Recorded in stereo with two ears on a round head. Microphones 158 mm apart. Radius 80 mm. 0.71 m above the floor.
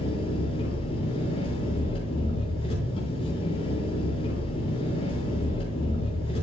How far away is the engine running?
About 6.5 m.